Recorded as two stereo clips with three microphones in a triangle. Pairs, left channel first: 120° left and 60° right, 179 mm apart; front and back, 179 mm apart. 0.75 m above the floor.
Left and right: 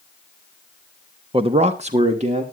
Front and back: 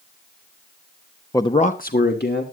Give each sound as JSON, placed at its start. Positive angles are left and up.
{"t": 1.3, "sound": "a man speaking", "azimuth_deg": -55, "distance_m": 0.8}